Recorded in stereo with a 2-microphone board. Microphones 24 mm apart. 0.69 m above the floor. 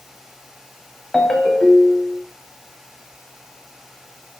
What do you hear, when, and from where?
1.1 s a ringtone: 30° left (ahead or behind), 1.6 m